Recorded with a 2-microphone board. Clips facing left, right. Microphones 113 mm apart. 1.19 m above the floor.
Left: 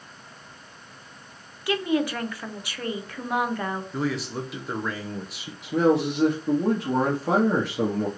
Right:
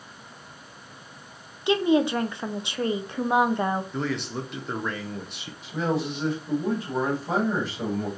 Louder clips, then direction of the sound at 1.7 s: Right 4 dB; 20° right (ahead or behind).